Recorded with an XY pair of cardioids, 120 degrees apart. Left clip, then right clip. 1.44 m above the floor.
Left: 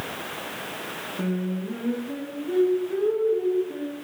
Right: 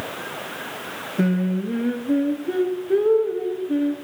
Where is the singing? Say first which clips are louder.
Right 8 dB; 55° right, 0.9 m.